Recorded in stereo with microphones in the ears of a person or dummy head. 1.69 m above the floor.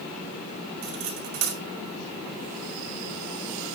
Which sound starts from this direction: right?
Cutlery clinking, at 0.8 s.